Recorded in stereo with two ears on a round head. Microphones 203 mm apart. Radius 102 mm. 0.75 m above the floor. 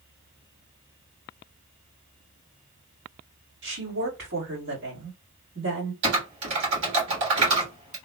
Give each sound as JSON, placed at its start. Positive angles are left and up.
{"t": 3.6, "sound": "a woman speaking", "side_deg": -60, "distance_m": 1.6}
{"t": 6.0, "sound": "typing on a keyboard", "side_deg": -60, "distance_m": 1.8}